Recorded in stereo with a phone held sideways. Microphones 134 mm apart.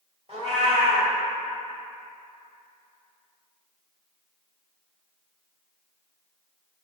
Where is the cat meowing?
50° right (ahead or behind), 1.6 m.